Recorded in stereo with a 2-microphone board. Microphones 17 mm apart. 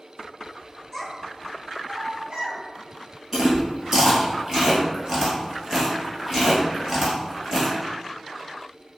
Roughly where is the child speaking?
Centre.